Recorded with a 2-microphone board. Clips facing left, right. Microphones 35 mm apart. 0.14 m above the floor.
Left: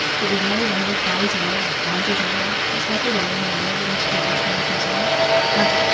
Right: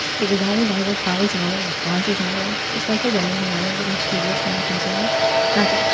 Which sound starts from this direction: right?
A woman speaking, at 0.2 s.